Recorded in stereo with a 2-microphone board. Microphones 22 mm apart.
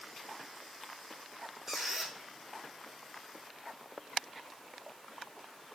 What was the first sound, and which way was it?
A squeak, 15° right (ahead or behind).